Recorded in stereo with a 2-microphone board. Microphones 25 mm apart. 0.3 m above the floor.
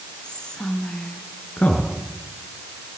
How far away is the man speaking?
About 3.5 m.